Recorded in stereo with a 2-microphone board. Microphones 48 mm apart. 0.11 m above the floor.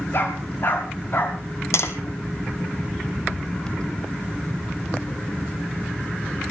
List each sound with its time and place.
0.1 s a dog barking: 55° left (ahead or behind), 7 m
1.7 s tapping: 70° left (ahead or behind), 2.5 m